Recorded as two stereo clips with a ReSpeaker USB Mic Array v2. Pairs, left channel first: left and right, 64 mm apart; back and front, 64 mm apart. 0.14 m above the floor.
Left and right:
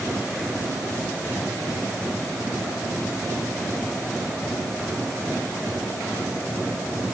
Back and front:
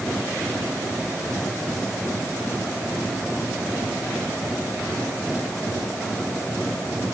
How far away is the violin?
No violin in this recording.